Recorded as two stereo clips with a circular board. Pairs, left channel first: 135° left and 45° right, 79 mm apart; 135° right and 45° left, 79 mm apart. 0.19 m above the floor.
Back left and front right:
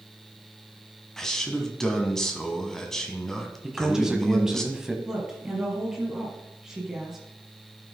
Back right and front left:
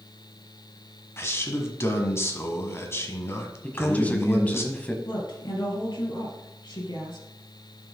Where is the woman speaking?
125° right, 3.5 m.